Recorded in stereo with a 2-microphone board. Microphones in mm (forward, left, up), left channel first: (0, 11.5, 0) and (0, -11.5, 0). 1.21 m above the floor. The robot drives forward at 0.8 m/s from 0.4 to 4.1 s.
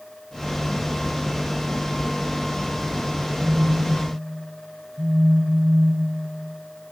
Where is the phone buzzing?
85° right, 7 m; by 6.3 s 80° right, 7 m.